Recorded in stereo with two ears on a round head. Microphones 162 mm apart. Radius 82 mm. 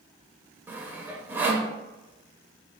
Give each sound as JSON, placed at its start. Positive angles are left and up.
{"t": 0.7, "sound": "sawing", "side_deg": -10, "distance_m": 0.5}